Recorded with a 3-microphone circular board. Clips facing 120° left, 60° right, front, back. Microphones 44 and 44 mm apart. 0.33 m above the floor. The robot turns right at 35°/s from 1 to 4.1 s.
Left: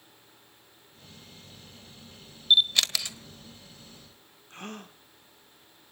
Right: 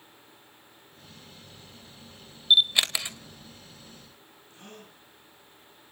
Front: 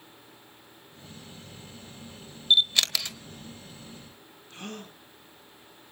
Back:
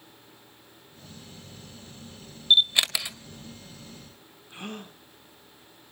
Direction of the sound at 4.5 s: 110° left.